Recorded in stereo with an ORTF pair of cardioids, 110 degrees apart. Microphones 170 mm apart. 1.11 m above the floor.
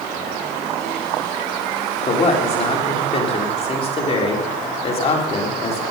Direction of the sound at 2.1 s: 35° left.